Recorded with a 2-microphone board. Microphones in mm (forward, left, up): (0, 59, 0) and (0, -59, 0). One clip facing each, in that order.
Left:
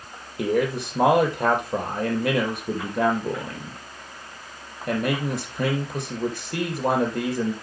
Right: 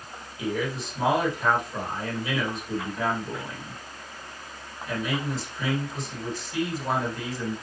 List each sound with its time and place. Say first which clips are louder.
0.4 s a man speaking: left 6 dB; 65° left (ahead or behind), 4.5 m